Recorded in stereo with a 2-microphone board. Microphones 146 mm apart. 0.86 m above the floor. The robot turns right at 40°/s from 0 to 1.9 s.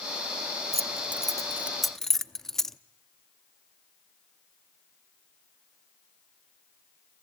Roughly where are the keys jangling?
Right.